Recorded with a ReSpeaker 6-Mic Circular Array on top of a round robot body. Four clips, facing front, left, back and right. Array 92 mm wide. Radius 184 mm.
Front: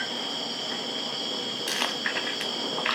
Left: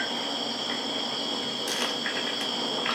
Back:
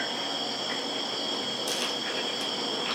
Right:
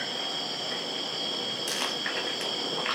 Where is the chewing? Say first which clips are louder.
Left 2 dB, front 2 dB; straight ahead, 0.8 m.